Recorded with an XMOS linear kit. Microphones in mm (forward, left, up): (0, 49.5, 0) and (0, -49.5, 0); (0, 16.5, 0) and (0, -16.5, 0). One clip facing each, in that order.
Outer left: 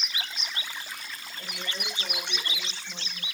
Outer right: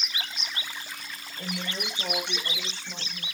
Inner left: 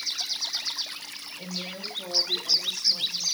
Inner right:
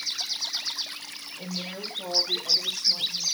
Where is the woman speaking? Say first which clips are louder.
Outer right 5 dB, inner right 1 dB; 35° right (ahead or behind), 5 m; by 3.2 s 50° right (ahead or behind), 5.5 m.